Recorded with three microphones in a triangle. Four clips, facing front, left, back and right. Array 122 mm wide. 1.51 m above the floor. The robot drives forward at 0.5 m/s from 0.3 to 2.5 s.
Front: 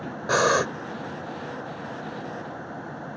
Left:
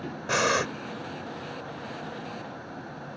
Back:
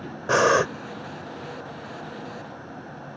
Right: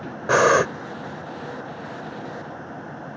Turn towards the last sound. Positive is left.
turn(degrees=-140)